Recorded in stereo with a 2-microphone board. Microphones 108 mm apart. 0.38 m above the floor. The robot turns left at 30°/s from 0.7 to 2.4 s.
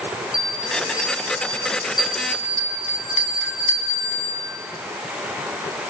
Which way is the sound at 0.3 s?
35° left (ahead or behind).